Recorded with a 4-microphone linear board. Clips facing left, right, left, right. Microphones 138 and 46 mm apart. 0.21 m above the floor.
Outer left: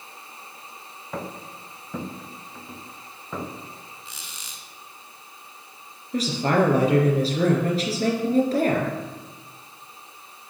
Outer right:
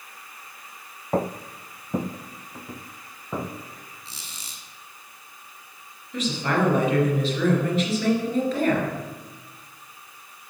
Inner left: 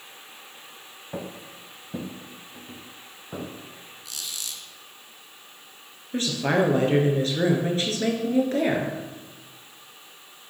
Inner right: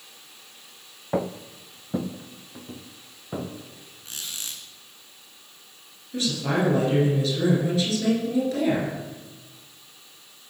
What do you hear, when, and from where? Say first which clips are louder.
1.1 s footsteps: outer right 8 dB, inner right 8 dB; 40° right (ahead or behind), 0.8 m; by 3.5 s 15° right (ahead or behind), 1.9 m
4.0 s a squeak: outer left 1 dB, inner right 1 dB; 35° right (ahead or behind), 1.9 m
6.1 s a woman speaking: outer left 3 dB, inner left 2 dB; 40° left (ahead or behind), 3.5 m